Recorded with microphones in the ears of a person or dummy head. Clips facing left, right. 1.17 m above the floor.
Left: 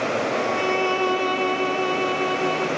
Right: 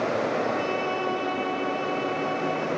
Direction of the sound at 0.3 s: 60° left (ahead or behind).